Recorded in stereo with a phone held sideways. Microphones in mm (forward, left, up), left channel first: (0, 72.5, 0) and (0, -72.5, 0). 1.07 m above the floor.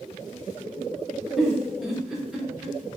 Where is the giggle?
5° right (ahead or behind), 0.8 m.